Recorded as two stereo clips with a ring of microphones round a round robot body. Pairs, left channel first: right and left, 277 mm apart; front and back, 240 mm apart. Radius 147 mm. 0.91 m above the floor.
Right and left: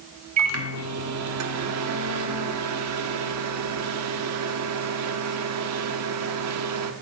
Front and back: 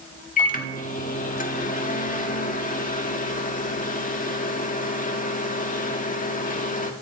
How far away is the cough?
No cough in this recording.